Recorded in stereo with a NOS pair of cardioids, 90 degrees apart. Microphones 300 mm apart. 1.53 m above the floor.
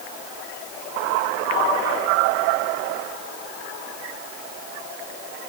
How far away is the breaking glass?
I don't hear breaking glass.